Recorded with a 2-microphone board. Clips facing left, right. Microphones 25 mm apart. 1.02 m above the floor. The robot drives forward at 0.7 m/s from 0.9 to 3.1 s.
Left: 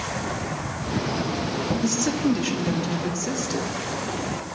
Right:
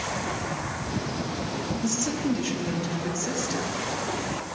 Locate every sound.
1.8 s a woman speaking: 35° left (ahead or behind), 1.0 m; by 3.8 s 20° left (ahead or behind), 1.9 m